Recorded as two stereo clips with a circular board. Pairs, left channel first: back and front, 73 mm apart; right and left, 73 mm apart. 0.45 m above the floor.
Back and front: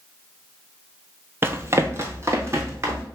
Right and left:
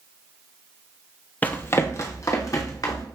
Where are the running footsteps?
35° right, 0.5 m; by 3.0 s 55° right, 1.4 m.